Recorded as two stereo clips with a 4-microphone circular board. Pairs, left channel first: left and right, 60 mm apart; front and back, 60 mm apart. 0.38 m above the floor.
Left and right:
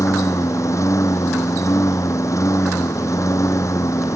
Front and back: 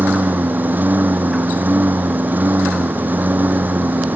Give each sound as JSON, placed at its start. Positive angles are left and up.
{"t": 0.0, "sound": "a lawn mower", "azimuth_deg": 120}